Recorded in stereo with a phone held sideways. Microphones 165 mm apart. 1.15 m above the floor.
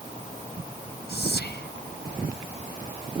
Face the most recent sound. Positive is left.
turn(degrees=85)